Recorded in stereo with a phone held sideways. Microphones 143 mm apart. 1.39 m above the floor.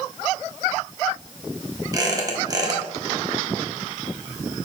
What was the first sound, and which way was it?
A squeak, 25° right (ahead or behind).